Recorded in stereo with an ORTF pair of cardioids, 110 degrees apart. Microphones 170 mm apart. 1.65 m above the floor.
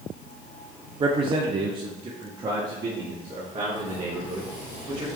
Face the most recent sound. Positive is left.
turn(degrees=-30)